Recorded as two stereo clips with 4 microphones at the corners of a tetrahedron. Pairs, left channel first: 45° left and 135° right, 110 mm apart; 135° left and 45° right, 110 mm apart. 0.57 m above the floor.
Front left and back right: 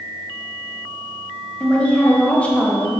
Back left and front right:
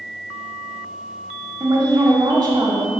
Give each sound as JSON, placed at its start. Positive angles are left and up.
{"t": 1.6, "sound": "a woman speaking", "azimuth_deg": -25, "distance_m": 1.2}